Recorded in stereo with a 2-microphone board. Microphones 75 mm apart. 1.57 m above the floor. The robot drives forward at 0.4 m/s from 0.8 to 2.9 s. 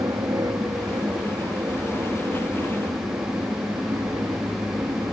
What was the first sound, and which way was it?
An aircraft, 60° right (ahead or behind).